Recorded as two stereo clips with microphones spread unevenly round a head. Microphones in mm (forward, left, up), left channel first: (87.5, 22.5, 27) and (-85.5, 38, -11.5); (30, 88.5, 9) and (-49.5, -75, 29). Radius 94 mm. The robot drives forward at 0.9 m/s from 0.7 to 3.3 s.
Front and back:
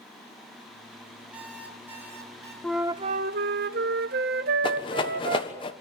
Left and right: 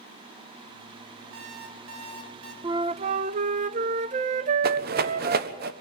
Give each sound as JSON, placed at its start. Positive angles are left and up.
{"t": 1.3, "sound": "an alarm clock", "azimuth_deg": -95, "distance_m": 5.5}
{"t": 2.6, "sound": "a flute", "azimuth_deg": -65, "distance_m": 0.6}
{"t": 4.6, "sound": "a rattle", "azimuth_deg": -75, "distance_m": 1.3}